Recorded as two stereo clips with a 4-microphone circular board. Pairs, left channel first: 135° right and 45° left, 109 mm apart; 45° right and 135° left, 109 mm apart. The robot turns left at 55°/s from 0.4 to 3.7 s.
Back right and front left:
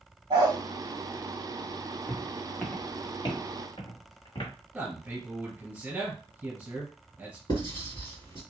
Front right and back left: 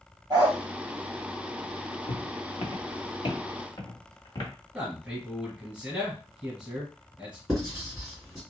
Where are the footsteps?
45° right, 1.0 m; by 4.5 s 90° right, 1.8 m.